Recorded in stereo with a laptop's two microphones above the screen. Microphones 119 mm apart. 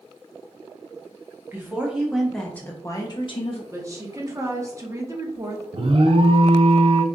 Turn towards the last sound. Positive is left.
turn(degrees=-50)  # may be behind; listen again after turning